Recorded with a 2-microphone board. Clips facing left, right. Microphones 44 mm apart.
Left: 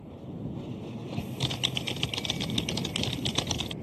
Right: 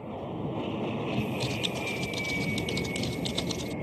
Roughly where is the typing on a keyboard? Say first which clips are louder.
Right 2 dB; left.